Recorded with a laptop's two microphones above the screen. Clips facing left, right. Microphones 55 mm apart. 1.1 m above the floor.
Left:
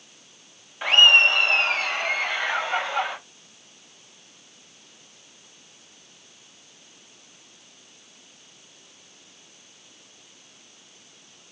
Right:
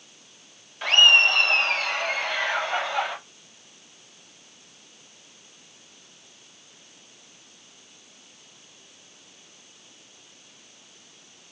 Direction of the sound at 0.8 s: 10° left (ahead or behind).